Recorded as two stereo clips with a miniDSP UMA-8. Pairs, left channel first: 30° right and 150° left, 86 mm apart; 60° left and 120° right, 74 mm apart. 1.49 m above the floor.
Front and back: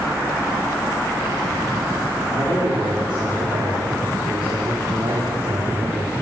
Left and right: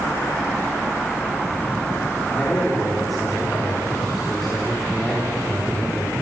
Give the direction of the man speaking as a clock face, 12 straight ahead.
7 o'clock.